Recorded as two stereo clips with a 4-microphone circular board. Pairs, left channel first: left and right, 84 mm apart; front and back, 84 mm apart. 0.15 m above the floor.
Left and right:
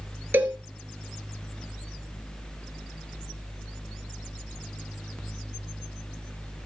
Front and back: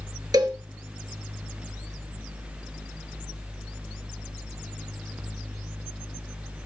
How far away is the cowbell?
About 1.9 m.